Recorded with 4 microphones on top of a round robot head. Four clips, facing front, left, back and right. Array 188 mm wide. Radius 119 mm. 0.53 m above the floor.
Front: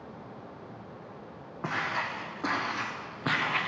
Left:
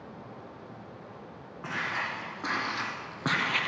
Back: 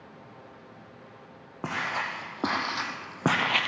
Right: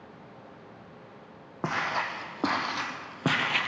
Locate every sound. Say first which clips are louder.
1.6 s footsteps: right 4 dB, back 1 dB; 120° right, 2.5 m; by 3.7 s 175° right, 1.2 m